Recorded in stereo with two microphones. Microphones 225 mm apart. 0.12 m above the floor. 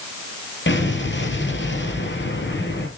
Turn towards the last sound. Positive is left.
turn(degrees=55)  # may be behind; listen again after turning